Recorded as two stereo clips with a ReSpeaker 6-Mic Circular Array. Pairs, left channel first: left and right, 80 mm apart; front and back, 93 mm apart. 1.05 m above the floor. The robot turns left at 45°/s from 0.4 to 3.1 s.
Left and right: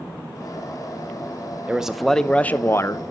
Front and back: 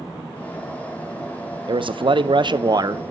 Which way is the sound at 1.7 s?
165° right.